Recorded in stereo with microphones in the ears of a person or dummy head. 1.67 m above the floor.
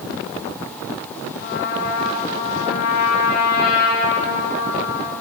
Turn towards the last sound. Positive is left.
turn(degrees=55)  # may be behind; listen again after turning